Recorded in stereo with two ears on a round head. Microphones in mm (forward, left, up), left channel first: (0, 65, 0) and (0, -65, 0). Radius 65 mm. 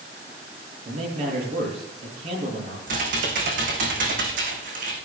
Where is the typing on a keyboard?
60° right (ahead or behind), 4 m.